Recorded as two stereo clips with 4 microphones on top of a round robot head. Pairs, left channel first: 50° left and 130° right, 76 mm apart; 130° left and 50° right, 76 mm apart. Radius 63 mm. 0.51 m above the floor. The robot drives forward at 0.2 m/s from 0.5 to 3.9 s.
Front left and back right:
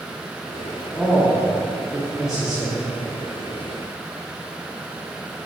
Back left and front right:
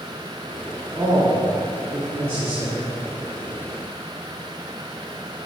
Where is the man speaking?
45° right, 1.6 m; by 2.9 s 65° right, 1.4 m.